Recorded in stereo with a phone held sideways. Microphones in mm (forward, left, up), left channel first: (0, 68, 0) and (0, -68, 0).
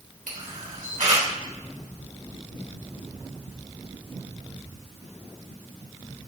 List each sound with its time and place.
0.3 s a camera shutter: 75° right (ahead or behind), 3.5 m